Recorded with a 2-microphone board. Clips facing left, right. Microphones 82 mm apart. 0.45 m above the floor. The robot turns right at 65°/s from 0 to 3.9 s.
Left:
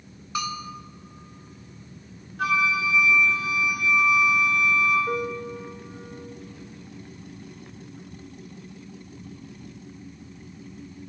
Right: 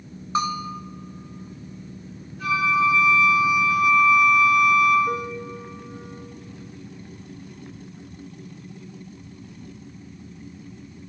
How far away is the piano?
About 0.9 m.